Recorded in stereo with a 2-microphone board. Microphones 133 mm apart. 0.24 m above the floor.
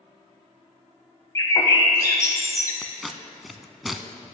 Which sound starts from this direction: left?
A bird, at 1.4 s.